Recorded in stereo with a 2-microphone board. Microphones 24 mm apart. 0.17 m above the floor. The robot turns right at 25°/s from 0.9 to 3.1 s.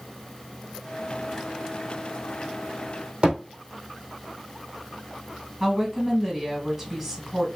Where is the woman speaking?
15° right (ahead or behind), 1.8 m.